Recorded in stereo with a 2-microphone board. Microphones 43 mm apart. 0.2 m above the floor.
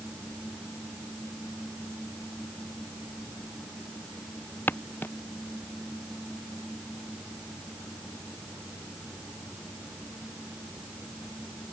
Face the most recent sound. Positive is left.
turn(degrees=50)  # may be behind; listen again after turning